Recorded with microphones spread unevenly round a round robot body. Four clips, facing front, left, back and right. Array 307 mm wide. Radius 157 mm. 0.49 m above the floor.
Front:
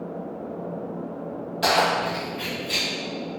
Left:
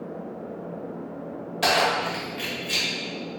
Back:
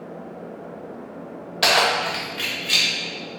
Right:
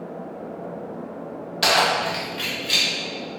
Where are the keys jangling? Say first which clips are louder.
Right 2 dB, back 1 dB; 170° right, 1.6 m; by 2.9 s 165° right, 2 m.